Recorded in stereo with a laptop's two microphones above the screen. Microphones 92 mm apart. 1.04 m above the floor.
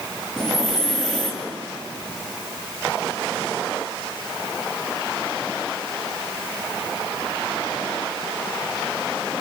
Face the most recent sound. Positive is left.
turn(degrees=5)  # may be behind; listen again after turning